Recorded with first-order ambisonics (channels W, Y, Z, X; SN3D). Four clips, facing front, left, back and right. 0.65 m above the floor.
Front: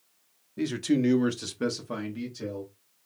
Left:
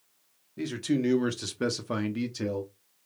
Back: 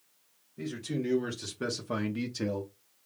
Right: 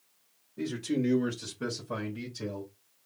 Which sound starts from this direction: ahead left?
A man speaking, at 0.6 s.